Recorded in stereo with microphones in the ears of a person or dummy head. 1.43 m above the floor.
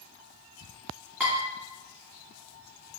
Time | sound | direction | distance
1.2 | dishes clattering | 5° right (ahead or behind) | 1.7 m